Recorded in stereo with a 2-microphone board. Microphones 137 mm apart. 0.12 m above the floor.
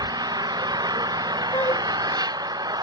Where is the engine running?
30° right (ahead or behind).